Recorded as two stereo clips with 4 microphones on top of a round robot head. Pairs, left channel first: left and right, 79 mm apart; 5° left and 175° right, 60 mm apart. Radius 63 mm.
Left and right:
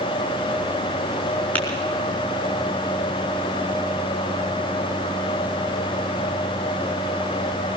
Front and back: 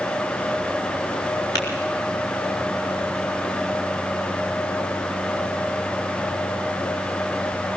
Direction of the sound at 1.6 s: 20° left.